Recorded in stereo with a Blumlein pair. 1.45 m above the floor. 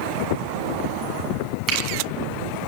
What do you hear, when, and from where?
1.7 s a finger snap: 30° right, 8 m